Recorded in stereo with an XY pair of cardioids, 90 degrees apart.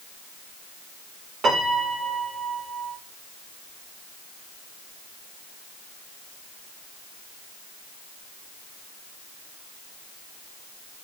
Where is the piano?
65° right, 3 m.